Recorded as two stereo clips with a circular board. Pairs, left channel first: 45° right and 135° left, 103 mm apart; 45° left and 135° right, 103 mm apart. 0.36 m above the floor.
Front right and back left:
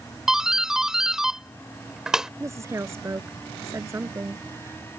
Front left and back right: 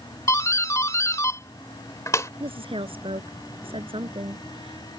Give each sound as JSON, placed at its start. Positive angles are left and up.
{"t": 0.3, "sound": "a doorbell", "azimuth_deg": 55}
{"t": 2.4, "sound": "a woman speaking", "azimuth_deg": -165}